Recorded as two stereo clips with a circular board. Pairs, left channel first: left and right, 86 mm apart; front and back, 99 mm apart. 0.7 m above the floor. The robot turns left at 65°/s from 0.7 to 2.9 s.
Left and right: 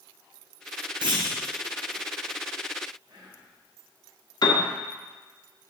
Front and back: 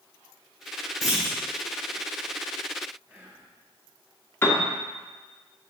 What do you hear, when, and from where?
1.0 s a clunk: 90° right, 2.5 m; by 1.4 s 110° right, 2.5 m
3.1 s whispering: 105° right, 3 m
4.4 s a piano: 65° left, 1.3 m